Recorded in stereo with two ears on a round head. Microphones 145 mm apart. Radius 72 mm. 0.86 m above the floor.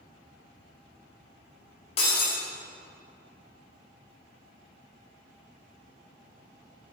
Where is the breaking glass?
40° left (ahead or behind), 1.8 m.